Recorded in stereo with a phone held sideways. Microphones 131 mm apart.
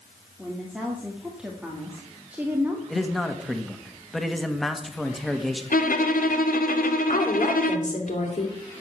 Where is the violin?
90° left, 1.3 m.